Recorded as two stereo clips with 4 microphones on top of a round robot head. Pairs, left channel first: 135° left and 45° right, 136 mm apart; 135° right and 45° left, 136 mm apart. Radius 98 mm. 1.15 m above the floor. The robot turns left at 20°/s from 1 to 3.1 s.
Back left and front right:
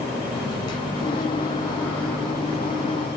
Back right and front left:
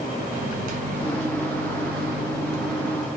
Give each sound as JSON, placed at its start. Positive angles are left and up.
{"t": 0.3, "sound": "a microwave", "azimuth_deg": 75, "distance_m": 0.6}